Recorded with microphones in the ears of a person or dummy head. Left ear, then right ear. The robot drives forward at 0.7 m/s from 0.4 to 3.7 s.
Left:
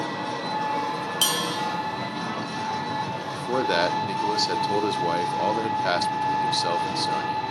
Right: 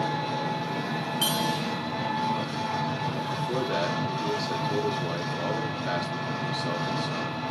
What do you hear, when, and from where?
0.0 s an engine running: 55° left (ahead or behind), 1.9 m; by 7.5 s 30° left (ahead or behind), 3.5 m
1.2 s a bell: 60° left (ahead or behind), 0.6 m; by 1.6 s 50° left (ahead or behind), 0.7 m
3.3 s a man speaking: 60° left (ahead or behind), 0.7 m; by 7.4 s 80° left, 0.6 m